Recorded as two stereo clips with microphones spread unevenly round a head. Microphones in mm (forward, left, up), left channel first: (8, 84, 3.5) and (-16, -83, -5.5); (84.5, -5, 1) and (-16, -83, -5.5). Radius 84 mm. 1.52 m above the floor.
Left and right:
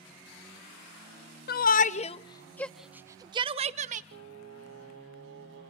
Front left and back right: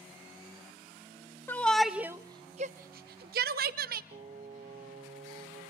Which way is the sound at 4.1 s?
115° right.